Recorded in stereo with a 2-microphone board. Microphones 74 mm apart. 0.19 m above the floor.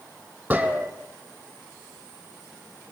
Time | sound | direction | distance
0.5 | a gunshot | 20° right (ahead or behind) | 3.5 m